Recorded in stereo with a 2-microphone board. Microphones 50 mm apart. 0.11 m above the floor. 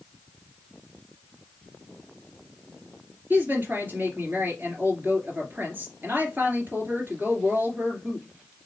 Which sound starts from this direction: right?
A woman speaking, at 3.3 s.